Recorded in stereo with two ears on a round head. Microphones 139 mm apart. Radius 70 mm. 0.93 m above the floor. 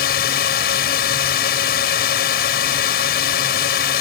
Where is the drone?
70° left (ahead or behind).